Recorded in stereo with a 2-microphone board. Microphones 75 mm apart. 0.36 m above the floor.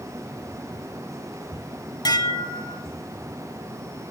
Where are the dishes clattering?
60° left (ahead or behind), 1.5 m.